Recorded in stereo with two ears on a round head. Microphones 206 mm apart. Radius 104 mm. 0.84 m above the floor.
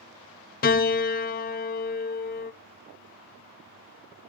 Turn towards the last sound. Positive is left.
turn(degrees=40)  # may be behind; listen again after turning